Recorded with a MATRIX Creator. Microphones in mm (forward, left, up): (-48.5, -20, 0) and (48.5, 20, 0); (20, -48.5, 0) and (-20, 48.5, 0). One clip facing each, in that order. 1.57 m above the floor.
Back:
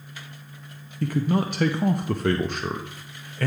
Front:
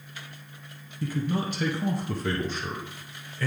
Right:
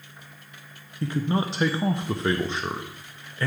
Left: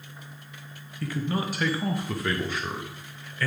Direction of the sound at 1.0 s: 130° right.